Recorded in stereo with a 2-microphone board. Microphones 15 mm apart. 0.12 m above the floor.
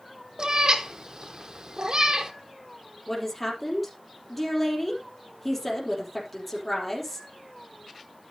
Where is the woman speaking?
10° left (ahead or behind), 4 m.